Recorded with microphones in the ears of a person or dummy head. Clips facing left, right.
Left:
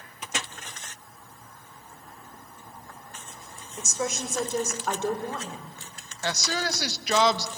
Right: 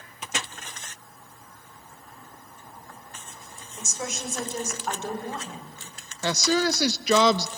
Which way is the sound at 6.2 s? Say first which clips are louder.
Right 6 dB; 70° right (ahead or behind).